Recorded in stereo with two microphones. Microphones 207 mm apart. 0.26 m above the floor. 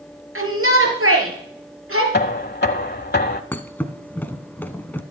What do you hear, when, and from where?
0.3 s a shout: 75° right (ahead or behind), 5 m; by 2.0 s 80° right, 6 m
2.1 s knocking: 50° left (ahead or behind), 1.0 m
3.5 s a thud: 10° left (ahead or behind), 1.0 m